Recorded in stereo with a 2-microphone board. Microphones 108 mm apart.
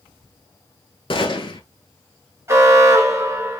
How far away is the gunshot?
About 1.1 m.